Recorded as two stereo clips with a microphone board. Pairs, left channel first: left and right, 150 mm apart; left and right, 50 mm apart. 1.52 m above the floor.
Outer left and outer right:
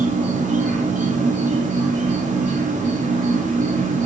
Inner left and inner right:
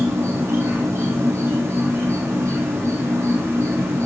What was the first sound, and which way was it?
An insect, 55° right (ahead or behind).